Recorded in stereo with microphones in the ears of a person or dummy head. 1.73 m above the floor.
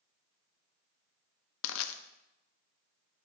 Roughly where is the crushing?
Left.